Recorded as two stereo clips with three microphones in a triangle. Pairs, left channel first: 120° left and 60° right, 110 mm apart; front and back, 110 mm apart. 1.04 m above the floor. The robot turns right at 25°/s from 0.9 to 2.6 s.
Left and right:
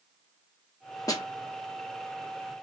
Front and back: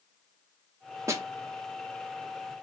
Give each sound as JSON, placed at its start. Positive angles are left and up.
{"t": 1.1, "sound": "a snare drum", "azimuth_deg": 140, "distance_m": 0.6}